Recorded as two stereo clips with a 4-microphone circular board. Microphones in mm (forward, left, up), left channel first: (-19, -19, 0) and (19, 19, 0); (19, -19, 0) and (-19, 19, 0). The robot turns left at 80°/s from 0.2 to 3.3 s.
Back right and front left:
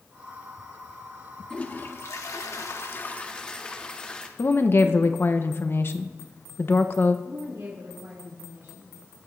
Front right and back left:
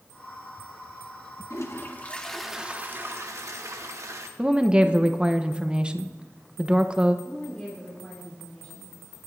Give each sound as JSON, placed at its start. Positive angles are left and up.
{"t": 1.5, "sound": "a toilet flushing", "azimuth_deg": -60, "distance_m": 1.3}
{"t": 4.4, "sound": "a woman speaking", "azimuth_deg": -160, "distance_m": 0.8}
{"t": 7.2, "sound": "a woman speaking", "azimuth_deg": 30, "distance_m": 2.5}